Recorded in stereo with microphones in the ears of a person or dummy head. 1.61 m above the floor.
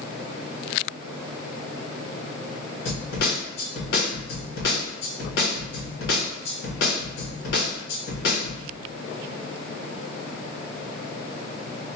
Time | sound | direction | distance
2.9 | a snare drum | 70° left (ahead or behind) | 1.6 m